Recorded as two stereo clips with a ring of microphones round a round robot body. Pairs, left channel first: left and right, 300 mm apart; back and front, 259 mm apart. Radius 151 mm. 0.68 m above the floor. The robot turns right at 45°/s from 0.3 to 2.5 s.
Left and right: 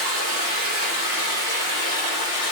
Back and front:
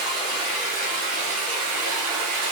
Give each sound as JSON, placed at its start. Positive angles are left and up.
{"t": 0.0, "sound": "running water", "azimuth_deg": -100, "distance_m": 1.1}